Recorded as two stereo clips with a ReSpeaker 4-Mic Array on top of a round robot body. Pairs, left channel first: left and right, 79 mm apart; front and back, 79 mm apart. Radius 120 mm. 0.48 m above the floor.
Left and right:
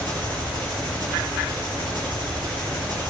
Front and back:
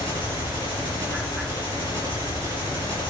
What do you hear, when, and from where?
0.0 s an engine running: 125° right, 6.5 m